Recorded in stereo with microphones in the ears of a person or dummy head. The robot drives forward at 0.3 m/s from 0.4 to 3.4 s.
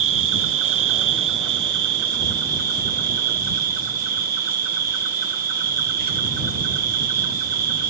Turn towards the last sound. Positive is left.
turn(degrees=-45)  # may be behind; listen again after turning